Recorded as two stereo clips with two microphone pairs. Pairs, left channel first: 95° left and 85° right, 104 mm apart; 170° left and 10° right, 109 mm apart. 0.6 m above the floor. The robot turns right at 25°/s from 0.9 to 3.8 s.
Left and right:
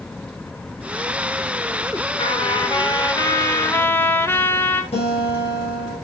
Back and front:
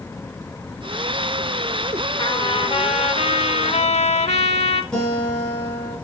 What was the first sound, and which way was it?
A trumpet, 125° left.